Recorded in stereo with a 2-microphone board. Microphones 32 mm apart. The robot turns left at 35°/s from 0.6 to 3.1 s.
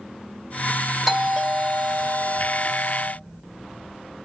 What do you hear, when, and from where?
1.1 s a doorbell: 5° right, 2.5 m; by 3.1 s 80° right, 2.5 m